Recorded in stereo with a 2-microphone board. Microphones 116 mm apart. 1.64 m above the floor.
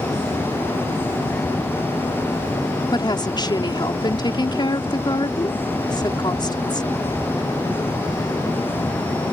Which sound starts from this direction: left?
A woman speaking, at 2.9 s.